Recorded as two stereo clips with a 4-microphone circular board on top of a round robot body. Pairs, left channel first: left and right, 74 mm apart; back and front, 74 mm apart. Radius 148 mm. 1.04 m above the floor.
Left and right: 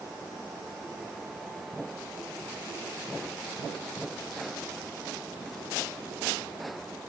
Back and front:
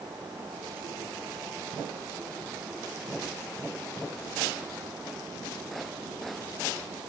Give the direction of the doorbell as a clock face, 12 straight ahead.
I don't hear a doorbell.